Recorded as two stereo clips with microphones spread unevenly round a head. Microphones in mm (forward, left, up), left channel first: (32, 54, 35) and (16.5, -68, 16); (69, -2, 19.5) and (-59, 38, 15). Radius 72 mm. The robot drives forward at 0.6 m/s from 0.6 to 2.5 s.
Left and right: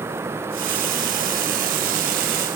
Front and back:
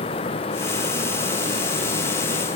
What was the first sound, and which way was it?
Only background noise.